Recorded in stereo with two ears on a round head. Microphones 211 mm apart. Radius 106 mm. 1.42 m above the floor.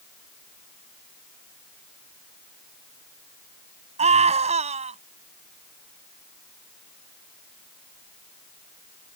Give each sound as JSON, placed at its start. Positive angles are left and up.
{"t": 4.0, "sound": "a scream", "side_deg": -25}